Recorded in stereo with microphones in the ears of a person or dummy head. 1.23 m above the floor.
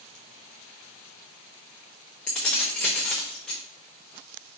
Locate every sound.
2.3 s keys jangling: 5° left (ahead or behind), 0.7 m